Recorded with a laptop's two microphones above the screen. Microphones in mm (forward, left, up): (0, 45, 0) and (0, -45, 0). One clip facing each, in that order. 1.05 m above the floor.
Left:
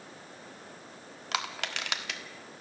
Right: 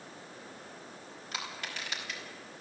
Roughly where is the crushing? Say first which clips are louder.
Left 6 dB; left.